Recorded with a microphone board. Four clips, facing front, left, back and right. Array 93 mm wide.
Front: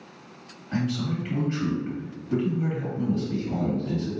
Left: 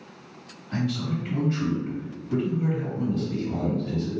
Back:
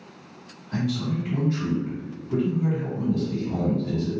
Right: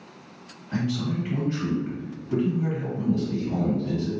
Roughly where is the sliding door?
No sliding door in this recording.